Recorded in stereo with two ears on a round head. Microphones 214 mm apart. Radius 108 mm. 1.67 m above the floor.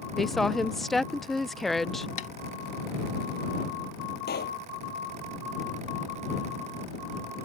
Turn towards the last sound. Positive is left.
turn(degrees=45)  # may be behind; listen again after turning